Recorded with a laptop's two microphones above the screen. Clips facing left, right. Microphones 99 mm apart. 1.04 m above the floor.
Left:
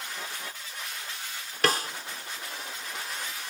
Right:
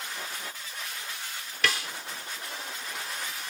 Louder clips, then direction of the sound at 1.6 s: Left 4 dB; 45° left (ahead or behind).